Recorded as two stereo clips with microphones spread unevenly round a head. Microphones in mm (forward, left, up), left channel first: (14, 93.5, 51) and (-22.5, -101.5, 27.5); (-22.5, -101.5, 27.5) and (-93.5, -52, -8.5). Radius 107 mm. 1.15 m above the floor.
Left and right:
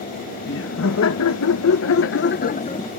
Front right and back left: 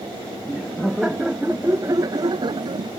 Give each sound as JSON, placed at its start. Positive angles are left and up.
{"t": 0.5, "sound": "laughter", "azimuth_deg": 50}